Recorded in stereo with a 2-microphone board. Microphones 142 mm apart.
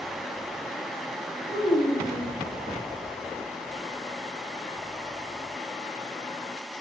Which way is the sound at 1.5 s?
50° left (ahead or behind).